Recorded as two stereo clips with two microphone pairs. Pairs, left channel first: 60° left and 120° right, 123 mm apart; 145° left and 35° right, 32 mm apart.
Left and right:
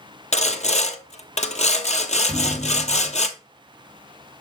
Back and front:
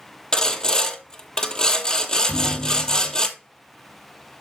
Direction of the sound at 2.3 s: 175° right.